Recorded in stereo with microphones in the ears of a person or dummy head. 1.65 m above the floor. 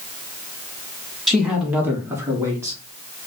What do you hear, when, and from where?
1.3 s a man speaking: centre (ahead or behind), 0.5 m; by 2.8 s 20° right (ahead or behind), 1.2 m